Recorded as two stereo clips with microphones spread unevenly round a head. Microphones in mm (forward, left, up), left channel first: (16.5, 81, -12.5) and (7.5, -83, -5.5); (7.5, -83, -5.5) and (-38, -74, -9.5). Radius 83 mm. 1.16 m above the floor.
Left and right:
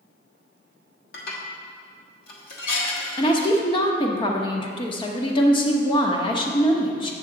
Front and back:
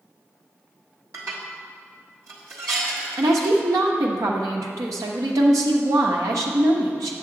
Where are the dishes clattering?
125° left, 1.3 m.